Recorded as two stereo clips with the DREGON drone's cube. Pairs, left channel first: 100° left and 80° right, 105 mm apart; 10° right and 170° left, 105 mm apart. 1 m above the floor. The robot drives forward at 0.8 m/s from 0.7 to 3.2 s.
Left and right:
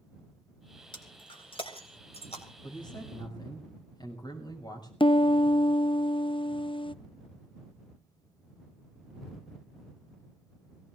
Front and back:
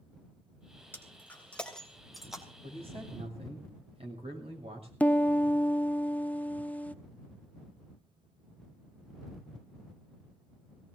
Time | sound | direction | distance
0.9 | breaking glass | 60° left | 2.5 m
2.6 | a man speaking | 145° left | 6 m
5.0 | a piano | 65° left | 0.6 m